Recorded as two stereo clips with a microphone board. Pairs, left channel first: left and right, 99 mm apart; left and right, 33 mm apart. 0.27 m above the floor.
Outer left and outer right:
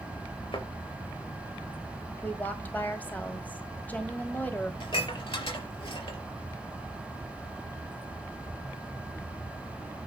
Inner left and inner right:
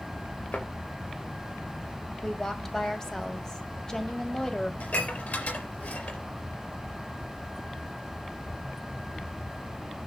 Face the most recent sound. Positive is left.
turn(degrees=65)  # may be behind; listen again after turning